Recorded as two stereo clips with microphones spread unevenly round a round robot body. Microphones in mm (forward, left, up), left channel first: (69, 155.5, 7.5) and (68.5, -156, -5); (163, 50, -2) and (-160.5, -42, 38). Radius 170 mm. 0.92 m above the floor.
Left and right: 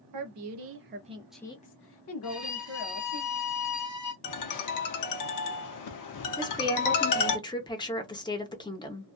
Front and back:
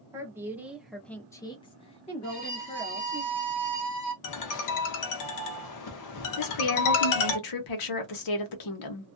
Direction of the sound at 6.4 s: 10° left.